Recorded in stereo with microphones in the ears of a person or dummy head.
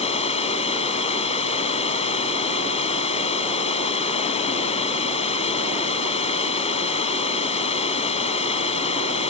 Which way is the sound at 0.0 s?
30° left (ahead or behind).